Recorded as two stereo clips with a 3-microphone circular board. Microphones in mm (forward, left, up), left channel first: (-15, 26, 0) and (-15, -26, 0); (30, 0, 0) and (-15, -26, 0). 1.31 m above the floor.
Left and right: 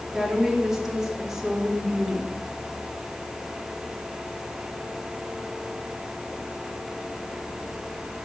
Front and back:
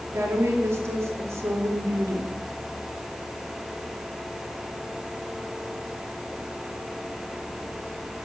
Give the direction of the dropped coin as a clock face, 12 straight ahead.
I don't hear a dropped coin.